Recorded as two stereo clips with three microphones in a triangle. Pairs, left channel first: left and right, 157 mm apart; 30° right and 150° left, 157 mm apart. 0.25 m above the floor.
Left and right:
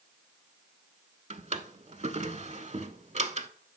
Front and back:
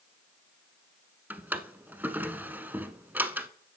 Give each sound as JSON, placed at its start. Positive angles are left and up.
{"t": 1.3, "sound": "a drawer", "azimuth_deg": -130, "distance_m": 0.6}